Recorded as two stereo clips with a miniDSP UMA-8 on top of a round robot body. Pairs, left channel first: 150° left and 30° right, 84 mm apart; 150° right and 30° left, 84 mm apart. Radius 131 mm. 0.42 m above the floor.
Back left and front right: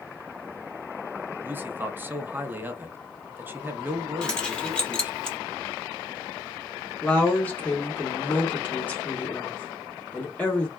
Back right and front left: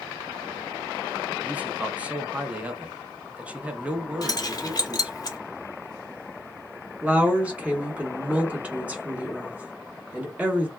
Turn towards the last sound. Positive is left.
turn(degrees=95)